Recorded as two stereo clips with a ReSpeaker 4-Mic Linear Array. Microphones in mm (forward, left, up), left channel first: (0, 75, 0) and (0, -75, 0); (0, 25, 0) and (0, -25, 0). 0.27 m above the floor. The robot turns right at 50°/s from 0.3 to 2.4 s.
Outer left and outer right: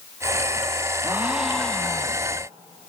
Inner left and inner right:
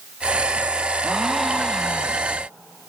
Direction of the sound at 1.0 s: 25° right.